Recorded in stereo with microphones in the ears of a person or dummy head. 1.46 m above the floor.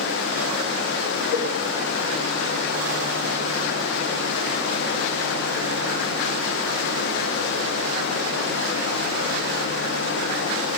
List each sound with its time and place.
0.0 s running water: 70° left (ahead or behind), 0.8 m
1.3 s a cowbell: 70° left (ahead or behind), 1.7 m